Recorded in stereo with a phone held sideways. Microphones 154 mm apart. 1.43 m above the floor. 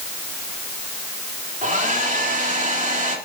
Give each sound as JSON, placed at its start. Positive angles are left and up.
{"t": 1.6, "sound": "a hair dryer", "side_deg": -55, "distance_m": 3.5}